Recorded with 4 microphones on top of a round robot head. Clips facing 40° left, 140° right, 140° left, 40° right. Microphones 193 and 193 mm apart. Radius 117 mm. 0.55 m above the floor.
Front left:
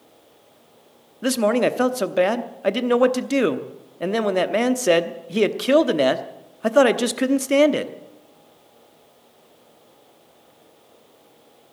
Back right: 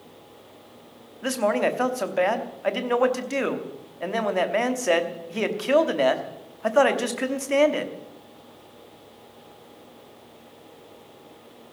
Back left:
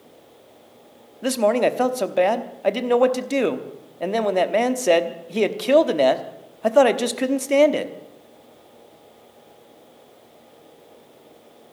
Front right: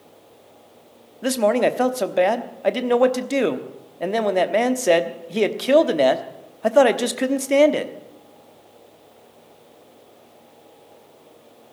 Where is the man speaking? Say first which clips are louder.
Front left 4 dB, even; 45° left, 1.0 m.